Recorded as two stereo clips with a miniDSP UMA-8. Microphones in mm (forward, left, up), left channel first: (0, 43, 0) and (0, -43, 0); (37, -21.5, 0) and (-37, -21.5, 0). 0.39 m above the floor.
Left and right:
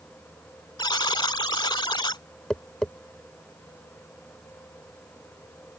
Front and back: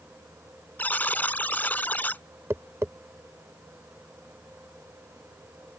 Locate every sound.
0.8 s a buzzer: 65° left
2.5 s tapping: 165° left